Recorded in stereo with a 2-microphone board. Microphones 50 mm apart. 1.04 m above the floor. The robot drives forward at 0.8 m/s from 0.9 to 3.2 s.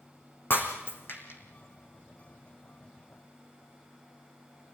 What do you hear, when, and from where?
0.5 s breaking glass: 45° left (ahead or behind), 4 m; by 1.4 s 50° left (ahead or behind), 3.5 m